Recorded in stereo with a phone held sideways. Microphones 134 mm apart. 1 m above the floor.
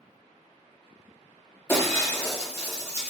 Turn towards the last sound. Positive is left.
turn(degrees=20)  # may be behind; listen again after turning